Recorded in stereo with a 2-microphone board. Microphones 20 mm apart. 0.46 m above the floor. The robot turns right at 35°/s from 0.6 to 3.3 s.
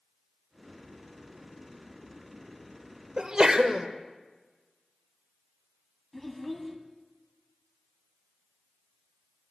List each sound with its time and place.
3.2 s a sneeze: 35° right (ahead or behind), 1.2 m
6.1 s a child speaking: 5° left (ahead or behind), 1.8 m